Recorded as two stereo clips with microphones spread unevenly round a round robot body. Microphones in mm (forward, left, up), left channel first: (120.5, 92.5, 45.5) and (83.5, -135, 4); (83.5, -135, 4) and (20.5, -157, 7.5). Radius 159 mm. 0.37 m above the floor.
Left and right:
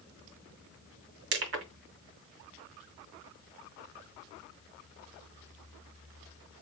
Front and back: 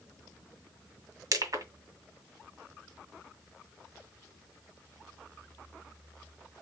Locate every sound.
1.3 s crushing: 135° right, 1.9 m